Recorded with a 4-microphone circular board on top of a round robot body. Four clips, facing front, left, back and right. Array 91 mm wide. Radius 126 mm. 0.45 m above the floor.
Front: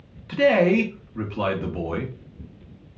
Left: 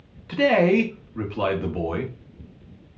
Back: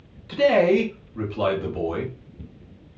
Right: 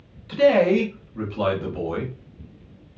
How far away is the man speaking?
About 1.4 m.